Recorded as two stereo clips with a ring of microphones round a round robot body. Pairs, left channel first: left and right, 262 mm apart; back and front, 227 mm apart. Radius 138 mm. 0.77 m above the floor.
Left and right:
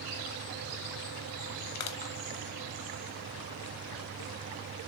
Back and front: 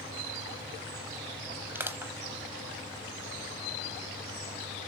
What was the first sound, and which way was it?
Crushing, 80° left.